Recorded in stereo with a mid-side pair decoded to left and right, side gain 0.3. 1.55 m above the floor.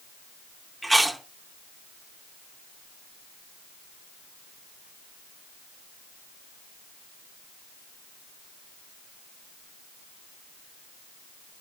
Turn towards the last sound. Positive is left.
turn(degrees=-10)